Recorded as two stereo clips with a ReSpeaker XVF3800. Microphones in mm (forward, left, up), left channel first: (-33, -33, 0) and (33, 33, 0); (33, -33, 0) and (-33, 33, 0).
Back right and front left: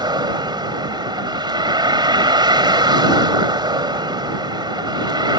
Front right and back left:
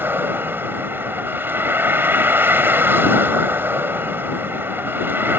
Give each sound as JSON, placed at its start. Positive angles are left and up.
{"t": 0.0, "sound": "a vehicle", "azimuth_deg": 70}